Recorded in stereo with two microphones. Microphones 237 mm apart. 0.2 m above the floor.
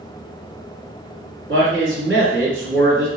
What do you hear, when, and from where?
1.5 s a man speaking: 55° right (ahead or behind), 2.0 m